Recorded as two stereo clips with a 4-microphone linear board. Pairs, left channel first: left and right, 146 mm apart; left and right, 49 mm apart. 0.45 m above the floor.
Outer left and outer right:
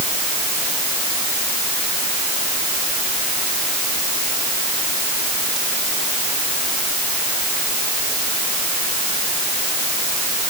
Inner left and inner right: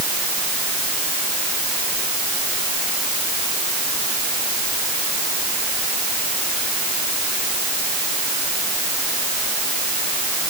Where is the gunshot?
I don't hear a gunshot.